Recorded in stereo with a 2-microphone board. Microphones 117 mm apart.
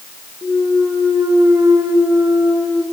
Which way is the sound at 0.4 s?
20° right (ahead or behind).